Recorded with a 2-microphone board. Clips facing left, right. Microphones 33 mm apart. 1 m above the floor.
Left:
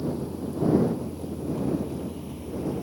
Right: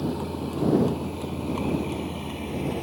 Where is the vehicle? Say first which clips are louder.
Right 1 dB; 60° right (ahead or behind); by 2.8 s 75° right (ahead or behind).